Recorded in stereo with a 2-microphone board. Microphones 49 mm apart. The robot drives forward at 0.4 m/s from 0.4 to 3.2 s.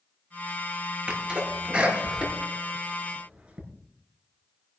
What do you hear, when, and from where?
1.1 s a sneeze: 20° right (ahead or behind), 5.5 m; by 3.6 s 25° right (ahead or behind), 5 m